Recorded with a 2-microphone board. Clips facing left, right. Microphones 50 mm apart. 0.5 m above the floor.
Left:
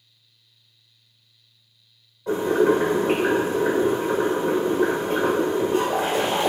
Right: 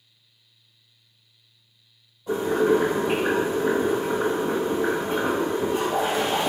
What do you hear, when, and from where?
2.3 s boiling: 60° left (ahead or behind), 1.7 m